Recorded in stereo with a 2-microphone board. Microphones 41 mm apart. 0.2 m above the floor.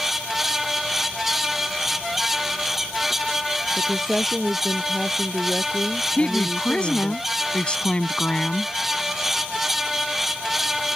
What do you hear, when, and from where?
3.8 s a woman speaking: 5° left (ahead or behind)
6.2 s a woman speaking: 25° left (ahead or behind)